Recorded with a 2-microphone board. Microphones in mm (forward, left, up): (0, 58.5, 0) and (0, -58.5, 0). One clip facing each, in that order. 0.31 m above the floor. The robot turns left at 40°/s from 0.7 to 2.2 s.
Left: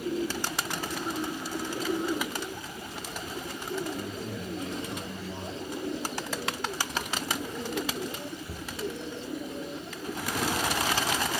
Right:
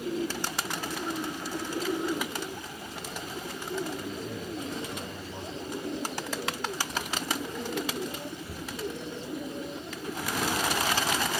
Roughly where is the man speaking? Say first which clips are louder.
Even; left.